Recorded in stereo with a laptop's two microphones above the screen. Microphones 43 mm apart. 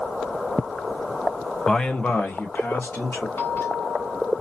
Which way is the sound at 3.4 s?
60° left (ahead or behind).